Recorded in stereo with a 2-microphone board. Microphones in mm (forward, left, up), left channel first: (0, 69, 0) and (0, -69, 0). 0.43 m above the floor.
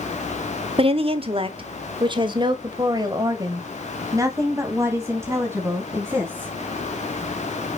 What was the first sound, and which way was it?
A woman speaking, 45° right (ahead or behind).